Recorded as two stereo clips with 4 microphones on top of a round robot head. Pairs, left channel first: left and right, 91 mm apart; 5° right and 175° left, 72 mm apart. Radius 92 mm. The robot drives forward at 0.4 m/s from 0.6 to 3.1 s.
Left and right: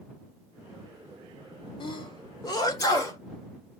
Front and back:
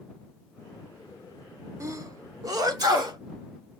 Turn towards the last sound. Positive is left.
turn(degrees=145)